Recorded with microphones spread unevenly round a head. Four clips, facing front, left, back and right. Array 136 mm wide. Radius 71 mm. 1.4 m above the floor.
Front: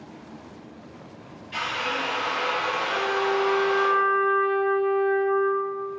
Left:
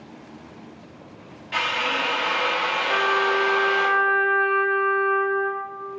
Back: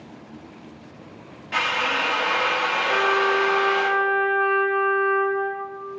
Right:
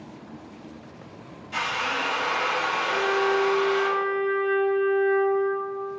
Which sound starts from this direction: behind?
A drill, at 1.5 s.